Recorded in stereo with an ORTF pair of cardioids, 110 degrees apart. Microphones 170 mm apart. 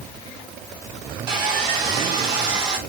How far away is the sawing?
About 1.6 m.